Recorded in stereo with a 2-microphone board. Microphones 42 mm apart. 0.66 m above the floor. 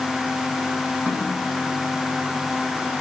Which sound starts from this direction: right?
A snare drum, at 1.1 s.